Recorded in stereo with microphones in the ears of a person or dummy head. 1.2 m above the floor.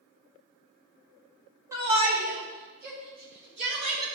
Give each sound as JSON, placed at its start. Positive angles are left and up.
{"t": 1.7, "sound": "a shout", "side_deg": -15, "distance_m": 1.0}